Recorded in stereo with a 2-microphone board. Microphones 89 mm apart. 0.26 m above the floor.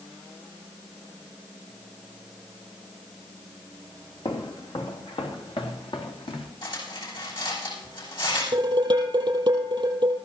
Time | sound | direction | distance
4.2 | footsteps | 65° left (ahead or behind) | 3 m
6.6 | cutlery clinking | 65° left (ahead or behind) | 9.5 m
8.5 | dishes clattering | 55° right (ahead or behind) | 5.5 m